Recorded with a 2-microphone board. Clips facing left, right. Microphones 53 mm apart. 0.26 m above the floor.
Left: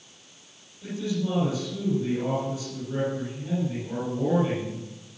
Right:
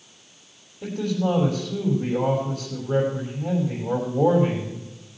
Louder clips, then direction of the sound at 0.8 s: Right 5 dB; 65° right (ahead or behind).